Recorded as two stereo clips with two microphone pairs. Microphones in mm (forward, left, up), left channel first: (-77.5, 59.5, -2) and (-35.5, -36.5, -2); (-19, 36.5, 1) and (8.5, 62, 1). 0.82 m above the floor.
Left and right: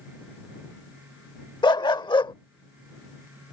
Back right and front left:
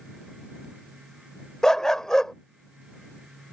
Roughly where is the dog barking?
Behind left.